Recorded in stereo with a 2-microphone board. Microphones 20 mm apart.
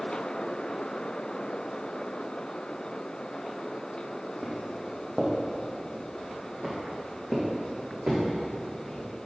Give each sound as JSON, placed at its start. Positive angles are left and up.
{"t": 4.4, "sound": "footsteps", "side_deg": -5, "distance_m": 1.6}